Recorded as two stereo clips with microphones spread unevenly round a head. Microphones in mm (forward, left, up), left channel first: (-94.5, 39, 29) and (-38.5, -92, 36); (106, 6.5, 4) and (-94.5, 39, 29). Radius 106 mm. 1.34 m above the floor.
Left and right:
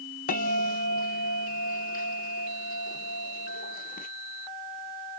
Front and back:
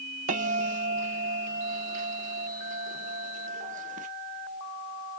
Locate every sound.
0.3 s a bell: 125° left, 0.8 m